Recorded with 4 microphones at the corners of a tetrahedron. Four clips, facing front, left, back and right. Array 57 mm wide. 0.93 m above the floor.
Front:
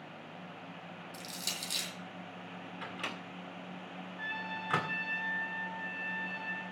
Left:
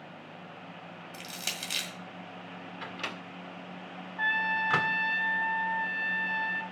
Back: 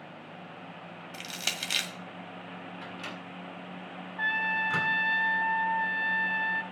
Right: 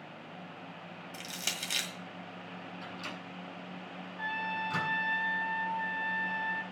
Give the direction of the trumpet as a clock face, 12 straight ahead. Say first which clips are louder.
Left 7 dB, back 11 dB; 8 o'clock.